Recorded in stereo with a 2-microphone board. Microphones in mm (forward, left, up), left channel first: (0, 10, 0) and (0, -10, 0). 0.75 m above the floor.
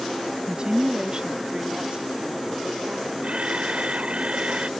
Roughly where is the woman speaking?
Right.